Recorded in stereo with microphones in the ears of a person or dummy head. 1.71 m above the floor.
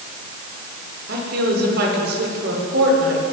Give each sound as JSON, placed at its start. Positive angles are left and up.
{"t": 1.1, "sound": "a woman speaking", "side_deg": -60, "distance_m": 7.0}